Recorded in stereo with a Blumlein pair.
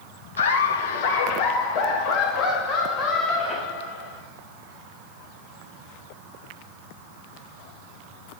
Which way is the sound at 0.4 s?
65° left.